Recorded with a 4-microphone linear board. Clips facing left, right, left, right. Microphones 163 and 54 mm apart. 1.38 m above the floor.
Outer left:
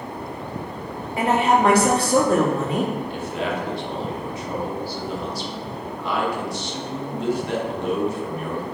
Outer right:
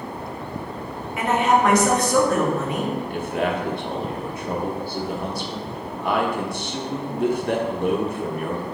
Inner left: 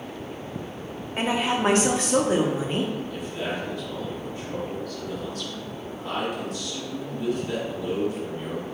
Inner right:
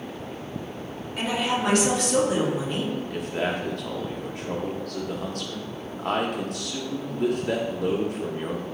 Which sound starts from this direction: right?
A man speaking, at 3.1 s.